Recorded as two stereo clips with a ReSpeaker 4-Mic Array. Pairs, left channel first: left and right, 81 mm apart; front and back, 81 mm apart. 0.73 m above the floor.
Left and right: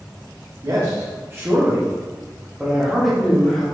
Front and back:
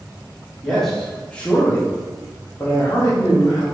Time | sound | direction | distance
0.6 | a man speaking | 90° right | 1.3 m